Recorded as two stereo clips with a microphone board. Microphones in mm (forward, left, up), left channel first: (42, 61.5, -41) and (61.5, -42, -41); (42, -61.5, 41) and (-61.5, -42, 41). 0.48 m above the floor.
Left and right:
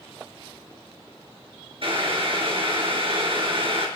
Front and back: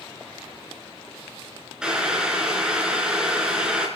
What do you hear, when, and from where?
1.8 s boiling: 110° right, 3.5 m